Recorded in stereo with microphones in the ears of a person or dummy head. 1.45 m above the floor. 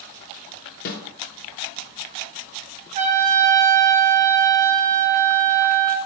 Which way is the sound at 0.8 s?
45° left (ahead or behind).